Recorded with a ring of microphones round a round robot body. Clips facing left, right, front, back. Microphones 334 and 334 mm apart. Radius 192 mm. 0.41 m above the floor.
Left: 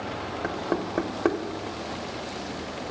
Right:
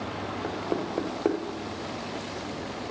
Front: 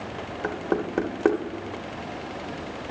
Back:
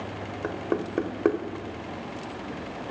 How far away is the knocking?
About 0.9 m.